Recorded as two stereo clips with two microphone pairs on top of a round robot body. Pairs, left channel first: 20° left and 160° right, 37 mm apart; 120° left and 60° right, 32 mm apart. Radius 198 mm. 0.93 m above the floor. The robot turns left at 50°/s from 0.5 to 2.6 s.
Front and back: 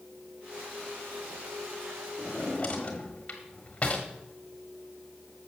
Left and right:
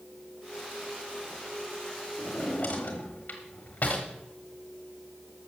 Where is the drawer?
105° left, 1.1 m; by 4.1 s 85° left, 1.1 m.